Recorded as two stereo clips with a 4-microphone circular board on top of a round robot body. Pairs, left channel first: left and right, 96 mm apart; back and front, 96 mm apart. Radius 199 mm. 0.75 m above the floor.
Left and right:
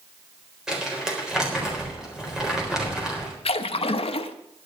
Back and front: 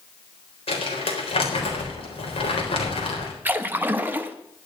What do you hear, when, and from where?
0.7 s crumpling: 175° right, 4 m
3.5 s a splash: 70° left, 0.8 m